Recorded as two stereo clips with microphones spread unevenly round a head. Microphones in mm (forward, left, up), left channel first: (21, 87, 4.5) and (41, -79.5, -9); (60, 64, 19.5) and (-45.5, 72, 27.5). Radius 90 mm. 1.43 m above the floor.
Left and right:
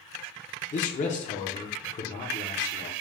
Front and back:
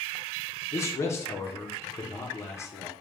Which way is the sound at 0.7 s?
60° left.